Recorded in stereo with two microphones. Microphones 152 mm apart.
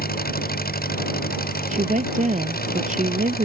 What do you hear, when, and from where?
0.0 s an engine running: 80° left
1.7 s a woman speaking: 55° right (ahead or behind)